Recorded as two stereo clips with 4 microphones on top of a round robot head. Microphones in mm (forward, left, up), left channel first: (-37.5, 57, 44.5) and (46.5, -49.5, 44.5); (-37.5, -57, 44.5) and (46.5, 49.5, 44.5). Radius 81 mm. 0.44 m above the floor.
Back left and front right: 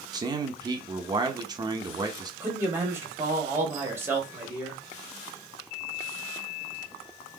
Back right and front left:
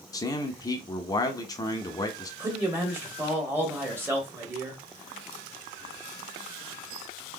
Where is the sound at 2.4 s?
Straight ahead, 1.3 m.